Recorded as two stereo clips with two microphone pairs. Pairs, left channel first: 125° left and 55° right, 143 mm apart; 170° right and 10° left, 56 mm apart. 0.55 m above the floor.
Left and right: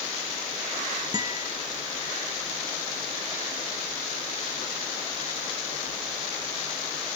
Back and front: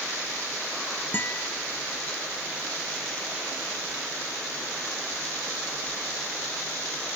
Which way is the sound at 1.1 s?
120° right.